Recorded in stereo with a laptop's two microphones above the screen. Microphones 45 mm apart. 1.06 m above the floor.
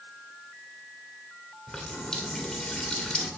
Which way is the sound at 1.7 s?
20° left (ahead or behind).